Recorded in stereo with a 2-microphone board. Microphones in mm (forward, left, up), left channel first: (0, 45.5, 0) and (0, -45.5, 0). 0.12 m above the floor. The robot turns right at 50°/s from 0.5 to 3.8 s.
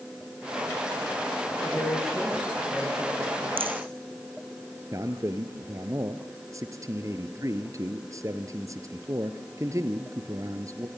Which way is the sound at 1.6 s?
150° left.